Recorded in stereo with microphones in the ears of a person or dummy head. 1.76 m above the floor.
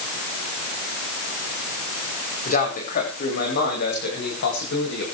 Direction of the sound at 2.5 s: 45° left (ahead or behind).